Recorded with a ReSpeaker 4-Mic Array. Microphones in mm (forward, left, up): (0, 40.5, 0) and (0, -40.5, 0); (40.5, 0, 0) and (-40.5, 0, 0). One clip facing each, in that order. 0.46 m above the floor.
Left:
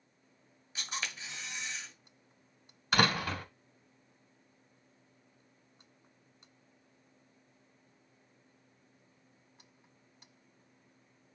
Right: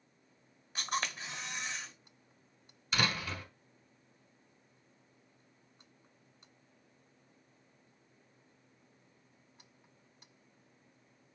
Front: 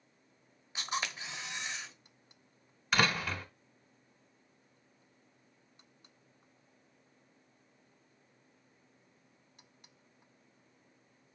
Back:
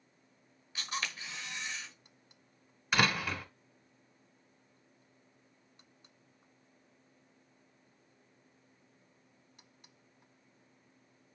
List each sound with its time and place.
0.8 s a camera shutter: 65° right, 1.3 m
2.9 s a door slam: 95° left, 1.1 m